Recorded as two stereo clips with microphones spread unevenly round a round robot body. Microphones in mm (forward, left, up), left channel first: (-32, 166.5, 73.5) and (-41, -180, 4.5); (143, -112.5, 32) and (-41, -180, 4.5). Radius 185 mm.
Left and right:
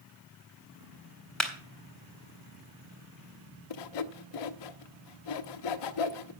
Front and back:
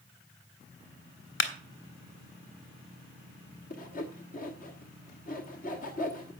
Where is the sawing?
80° left, 1.0 m.